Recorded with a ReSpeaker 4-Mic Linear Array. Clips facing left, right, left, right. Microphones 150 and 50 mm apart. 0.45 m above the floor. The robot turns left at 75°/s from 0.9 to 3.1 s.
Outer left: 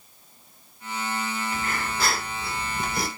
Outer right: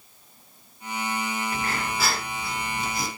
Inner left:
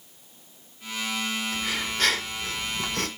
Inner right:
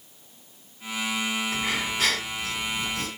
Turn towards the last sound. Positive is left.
turn(degrees=105)